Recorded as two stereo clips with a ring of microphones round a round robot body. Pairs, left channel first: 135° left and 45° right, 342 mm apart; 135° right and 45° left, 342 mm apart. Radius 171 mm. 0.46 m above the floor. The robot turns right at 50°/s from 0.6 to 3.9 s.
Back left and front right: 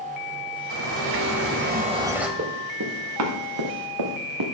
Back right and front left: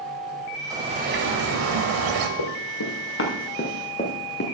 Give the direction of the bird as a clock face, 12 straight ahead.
1 o'clock.